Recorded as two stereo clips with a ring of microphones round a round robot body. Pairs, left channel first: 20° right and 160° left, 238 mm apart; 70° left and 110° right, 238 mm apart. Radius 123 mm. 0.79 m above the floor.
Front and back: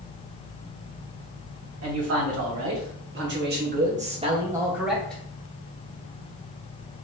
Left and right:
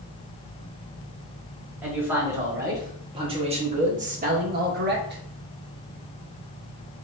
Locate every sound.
1.8 s a man speaking: 165° left, 2.5 m; by 5.2 s 100° right, 1.4 m